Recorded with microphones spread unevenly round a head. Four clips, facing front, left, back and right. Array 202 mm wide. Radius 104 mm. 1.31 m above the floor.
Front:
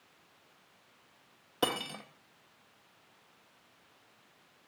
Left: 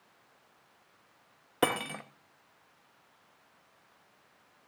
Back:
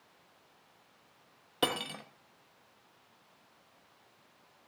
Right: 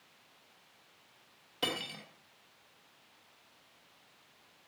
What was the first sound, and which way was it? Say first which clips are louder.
Cutlery clinking: left 9 dB, even; 85° left.